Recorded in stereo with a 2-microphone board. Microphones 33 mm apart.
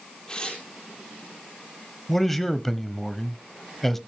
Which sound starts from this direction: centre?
A man speaking, at 2.1 s.